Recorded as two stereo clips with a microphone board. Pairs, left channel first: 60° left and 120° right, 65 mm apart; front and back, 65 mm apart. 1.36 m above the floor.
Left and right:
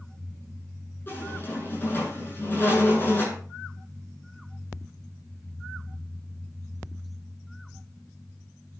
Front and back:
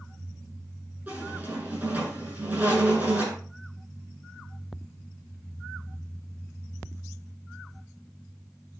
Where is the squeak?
115° left, 8.5 m.